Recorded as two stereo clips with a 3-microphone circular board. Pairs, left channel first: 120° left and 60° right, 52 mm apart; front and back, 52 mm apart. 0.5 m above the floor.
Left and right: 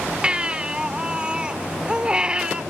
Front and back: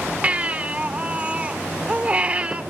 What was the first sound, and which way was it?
A baby crying, 125° right.